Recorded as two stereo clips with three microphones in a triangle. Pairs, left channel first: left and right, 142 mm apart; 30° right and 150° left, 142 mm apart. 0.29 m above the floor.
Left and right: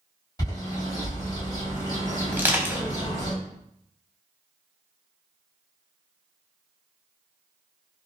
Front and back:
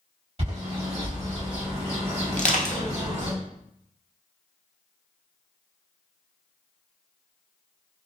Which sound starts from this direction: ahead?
Crushing, at 2.3 s.